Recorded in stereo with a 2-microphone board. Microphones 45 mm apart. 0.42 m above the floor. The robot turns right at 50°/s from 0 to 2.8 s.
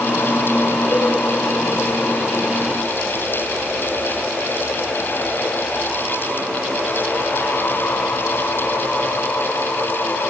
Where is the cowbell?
60° left (ahead or behind), 8 m; by 1.1 s 50° left (ahead or behind), 8 m.